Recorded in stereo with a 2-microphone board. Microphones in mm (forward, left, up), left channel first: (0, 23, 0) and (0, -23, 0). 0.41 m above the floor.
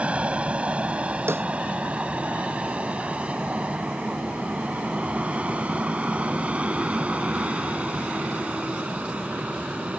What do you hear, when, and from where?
0.0 s an aircraft: 25° right (ahead or behind)
1.3 s a snare drum: 65° right (ahead or behind)